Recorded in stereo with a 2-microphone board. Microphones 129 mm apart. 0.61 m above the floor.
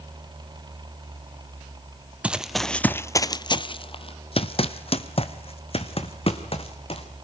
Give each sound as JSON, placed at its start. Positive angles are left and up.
{"t": 2.2, "sound": "running footsteps", "side_deg": -10, "distance_m": 0.8}